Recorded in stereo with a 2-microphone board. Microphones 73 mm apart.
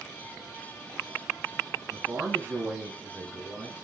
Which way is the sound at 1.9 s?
30° right (ahead or behind).